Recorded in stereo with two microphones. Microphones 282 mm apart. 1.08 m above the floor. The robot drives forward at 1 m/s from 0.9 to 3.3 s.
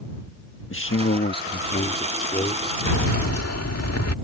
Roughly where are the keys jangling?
Left.